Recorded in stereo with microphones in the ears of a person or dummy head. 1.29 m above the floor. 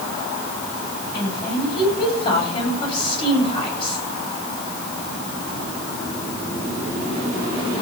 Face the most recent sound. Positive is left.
turn(degrees=30)  # may be behind; listen again after turning